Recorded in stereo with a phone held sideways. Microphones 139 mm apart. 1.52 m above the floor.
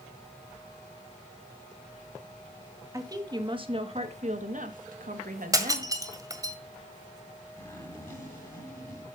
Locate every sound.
2.9 s a woman speaking: 25° right (ahead or behind), 2 m; by 5.9 s 75° right (ahead or behind), 2.5 m
5.5 s breaking glass: 25° right (ahead or behind), 1.7 m
7.6 s a zipper: 15° left (ahead or behind), 8.5 m